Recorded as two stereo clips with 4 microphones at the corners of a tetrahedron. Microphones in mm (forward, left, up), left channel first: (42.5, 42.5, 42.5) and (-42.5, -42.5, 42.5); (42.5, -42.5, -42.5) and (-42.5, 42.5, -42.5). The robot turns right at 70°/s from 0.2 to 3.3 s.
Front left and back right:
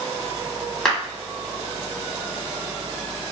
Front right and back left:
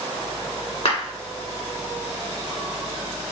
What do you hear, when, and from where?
0.8 s a clap: 40° right, 1.6 m; by 1.0 s 35° right, 1.6 m